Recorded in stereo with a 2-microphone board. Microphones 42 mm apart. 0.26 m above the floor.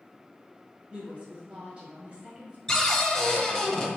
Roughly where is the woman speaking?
Right.